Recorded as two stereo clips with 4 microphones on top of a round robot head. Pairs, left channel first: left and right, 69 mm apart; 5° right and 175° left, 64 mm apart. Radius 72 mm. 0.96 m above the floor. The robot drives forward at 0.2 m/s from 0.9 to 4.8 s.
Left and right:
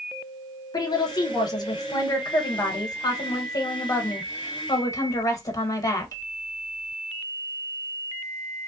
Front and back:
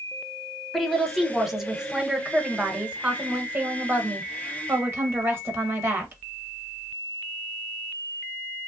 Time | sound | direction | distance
0.7 | a woman speaking | 85° left | 1.1 m